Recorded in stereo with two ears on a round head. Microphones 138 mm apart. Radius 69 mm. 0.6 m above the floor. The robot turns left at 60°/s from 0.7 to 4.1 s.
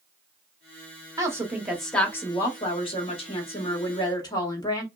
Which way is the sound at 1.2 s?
145° right.